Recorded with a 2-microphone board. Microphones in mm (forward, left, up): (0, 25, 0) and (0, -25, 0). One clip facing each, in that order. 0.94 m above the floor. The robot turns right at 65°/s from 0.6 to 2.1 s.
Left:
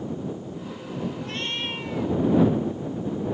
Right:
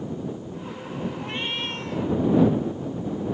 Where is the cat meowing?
30° right; by 2.2 s 30° left.